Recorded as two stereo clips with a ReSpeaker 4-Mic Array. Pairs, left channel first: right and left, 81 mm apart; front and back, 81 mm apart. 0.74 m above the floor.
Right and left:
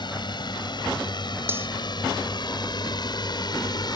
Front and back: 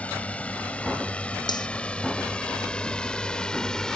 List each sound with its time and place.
0.0 s a drone: 75° right; by 4.0 s 80° right
1.5 s cutlery clinking: 25° left